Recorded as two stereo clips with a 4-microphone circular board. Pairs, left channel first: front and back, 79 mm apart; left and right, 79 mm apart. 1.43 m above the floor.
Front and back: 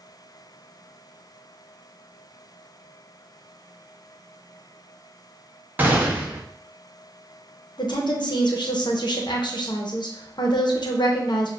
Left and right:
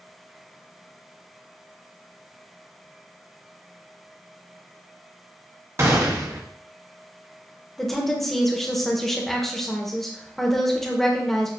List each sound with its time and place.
5.8 s a gunshot: 125° right, 0.8 m
7.8 s a woman speaking: 5° left, 0.9 m